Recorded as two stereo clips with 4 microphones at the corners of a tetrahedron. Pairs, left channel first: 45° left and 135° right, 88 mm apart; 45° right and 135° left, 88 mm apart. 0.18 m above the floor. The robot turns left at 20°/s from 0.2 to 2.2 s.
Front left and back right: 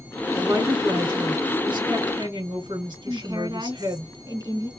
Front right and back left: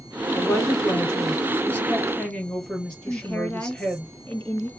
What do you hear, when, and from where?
0.4 s a woman speaking: 85° right, 2.5 m; by 4.1 s 125° right, 2.5 m
3.1 s a woman speaking: 115° right, 2.5 m